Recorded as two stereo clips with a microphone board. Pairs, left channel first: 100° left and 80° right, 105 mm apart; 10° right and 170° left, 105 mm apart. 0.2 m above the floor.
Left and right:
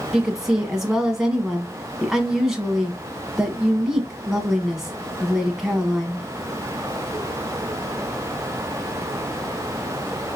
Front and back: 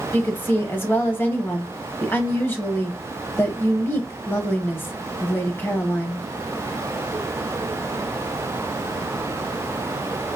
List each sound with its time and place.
0.1 s a woman speaking: 5° right, 1.0 m